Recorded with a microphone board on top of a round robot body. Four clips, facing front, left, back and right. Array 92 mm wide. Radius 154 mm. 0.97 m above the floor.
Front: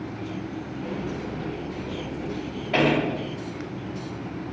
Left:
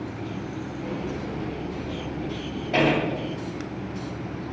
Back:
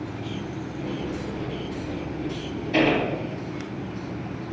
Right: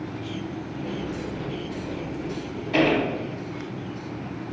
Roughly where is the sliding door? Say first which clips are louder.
Even, back 1 dB; ahead left.